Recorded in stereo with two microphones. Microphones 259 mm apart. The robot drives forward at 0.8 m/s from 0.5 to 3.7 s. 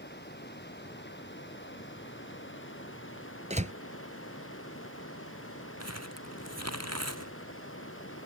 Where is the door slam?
25° right (ahead or behind); by 3.7 s 30° right (ahead or behind).